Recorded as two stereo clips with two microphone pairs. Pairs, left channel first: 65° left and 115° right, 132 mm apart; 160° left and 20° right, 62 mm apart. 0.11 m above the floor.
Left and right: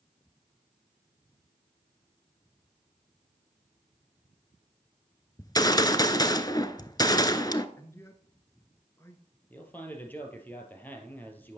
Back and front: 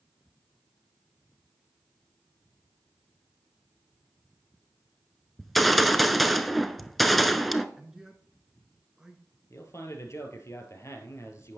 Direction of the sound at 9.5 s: 140° left.